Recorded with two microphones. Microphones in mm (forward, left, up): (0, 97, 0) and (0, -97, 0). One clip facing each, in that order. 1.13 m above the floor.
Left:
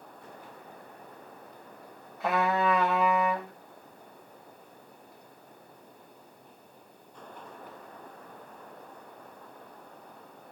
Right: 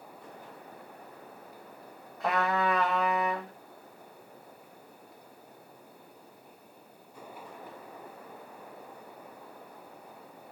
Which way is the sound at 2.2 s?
5° left (ahead or behind).